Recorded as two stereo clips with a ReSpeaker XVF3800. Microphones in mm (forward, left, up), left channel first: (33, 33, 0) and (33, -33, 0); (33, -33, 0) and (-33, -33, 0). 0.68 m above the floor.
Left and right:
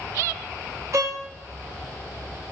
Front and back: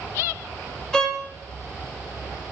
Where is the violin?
80° right, 0.6 m.